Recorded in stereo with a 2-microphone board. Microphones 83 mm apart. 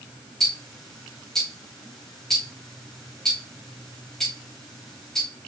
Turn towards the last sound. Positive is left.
turn(degrees=5)  # may be behind; listen again after turning